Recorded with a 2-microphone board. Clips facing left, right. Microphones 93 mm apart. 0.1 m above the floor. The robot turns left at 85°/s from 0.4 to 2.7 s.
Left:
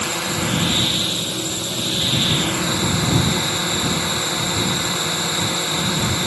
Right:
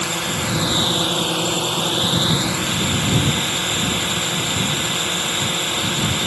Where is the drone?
5° left; by 6.3 s 170° left.